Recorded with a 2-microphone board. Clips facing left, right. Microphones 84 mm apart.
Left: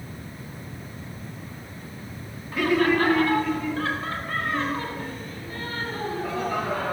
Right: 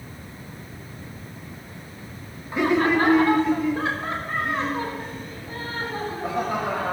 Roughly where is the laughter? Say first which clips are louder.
Right 1 dB; right.